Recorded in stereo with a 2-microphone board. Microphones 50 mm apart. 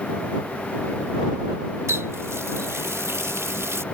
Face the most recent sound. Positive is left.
turn(degrees=-65)  # may be behind; listen again after turning